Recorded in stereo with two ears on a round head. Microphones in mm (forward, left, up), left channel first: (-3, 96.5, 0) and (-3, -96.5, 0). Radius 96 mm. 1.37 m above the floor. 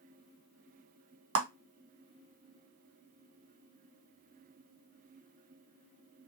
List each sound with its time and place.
1.4 s a clap: 65° right (ahead or behind), 1.5 m